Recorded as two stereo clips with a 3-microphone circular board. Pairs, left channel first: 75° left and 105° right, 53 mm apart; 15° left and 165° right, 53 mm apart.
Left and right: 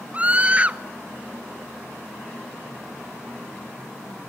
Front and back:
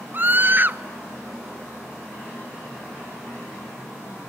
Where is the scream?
155° right, 0.7 m.